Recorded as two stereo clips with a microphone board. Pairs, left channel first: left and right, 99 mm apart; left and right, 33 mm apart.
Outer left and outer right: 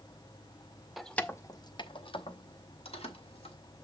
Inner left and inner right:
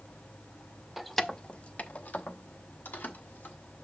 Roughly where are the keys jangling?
Centre.